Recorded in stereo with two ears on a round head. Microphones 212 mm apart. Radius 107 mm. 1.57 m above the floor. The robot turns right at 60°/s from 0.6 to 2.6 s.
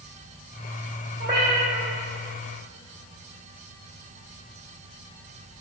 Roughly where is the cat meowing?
Ahead right.